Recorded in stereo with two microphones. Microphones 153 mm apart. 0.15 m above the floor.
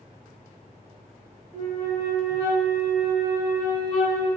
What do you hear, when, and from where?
1.5 s a flute: 20° left (ahead or behind), 1.5 m